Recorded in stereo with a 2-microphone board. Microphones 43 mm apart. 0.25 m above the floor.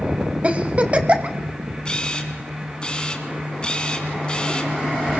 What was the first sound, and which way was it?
A giggle, 35° right (ahead or behind).